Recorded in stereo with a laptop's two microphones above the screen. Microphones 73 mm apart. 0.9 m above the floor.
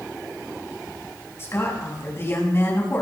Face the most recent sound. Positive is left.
turn(degrees=35)  # may be behind; listen again after turning